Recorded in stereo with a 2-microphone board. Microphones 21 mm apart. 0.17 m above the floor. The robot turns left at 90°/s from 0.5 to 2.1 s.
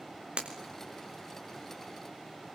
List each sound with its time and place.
0.4 s breaking glass: 60° right (ahead or behind), 4 m; by 0.8 s 35° right (ahead or behind), 4 m